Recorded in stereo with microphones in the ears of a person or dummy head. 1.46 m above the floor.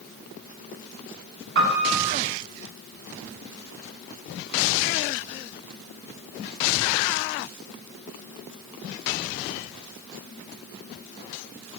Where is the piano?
60° right (ahead or behind), 5 m.